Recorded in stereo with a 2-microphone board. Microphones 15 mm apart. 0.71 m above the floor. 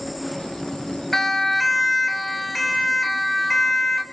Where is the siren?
15° left (ahead or behind), 2.5 m; by 4.0 s 20° left (ahead or behind), 4.5 m.